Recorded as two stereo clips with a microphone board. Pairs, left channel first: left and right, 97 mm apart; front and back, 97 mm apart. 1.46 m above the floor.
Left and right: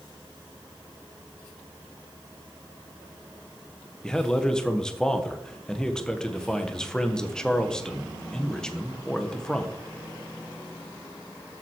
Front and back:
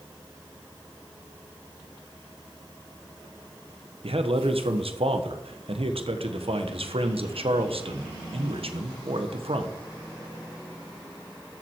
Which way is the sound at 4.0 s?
170° left.